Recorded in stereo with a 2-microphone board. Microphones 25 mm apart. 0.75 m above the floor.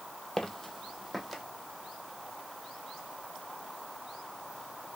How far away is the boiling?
No boiling in this recording.